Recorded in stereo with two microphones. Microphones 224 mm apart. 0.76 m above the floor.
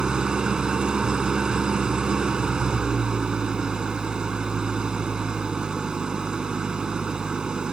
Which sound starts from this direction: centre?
An engine running, at 0.0 s.